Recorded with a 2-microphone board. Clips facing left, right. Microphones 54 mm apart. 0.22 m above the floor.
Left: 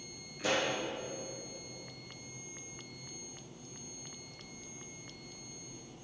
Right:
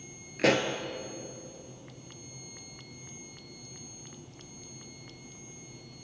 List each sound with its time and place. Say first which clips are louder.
0.4 s a pop: right 7 dB; 75° right (ahead or behind), 0.7 m